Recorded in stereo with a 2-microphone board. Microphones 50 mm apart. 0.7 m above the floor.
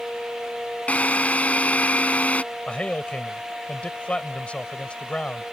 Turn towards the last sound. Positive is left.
turn(degrees=25)  # may be behind; listen again after turning